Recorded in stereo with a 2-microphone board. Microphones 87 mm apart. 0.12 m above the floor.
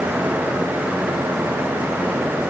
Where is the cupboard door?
No cupboard door in this recording.